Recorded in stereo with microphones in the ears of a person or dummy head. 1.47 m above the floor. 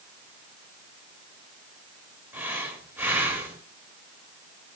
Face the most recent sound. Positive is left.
turn(degrees=-10)  # may be behind; listen again after turning